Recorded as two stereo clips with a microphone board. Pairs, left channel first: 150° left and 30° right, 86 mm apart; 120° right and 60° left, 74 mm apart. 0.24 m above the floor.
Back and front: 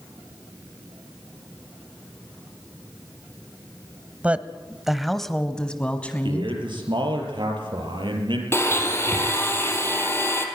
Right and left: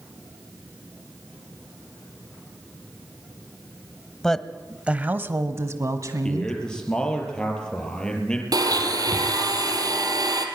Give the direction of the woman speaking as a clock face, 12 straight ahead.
2 o'clock.